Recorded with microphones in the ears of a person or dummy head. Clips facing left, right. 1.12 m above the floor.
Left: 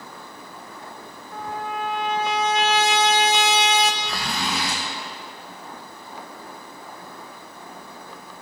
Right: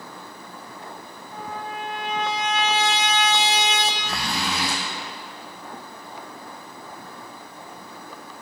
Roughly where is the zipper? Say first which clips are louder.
Even; right.